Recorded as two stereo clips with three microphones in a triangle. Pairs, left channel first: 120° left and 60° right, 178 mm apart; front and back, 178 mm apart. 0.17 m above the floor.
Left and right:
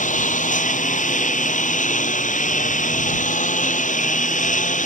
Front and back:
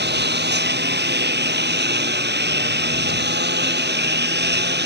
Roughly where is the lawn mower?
Behind.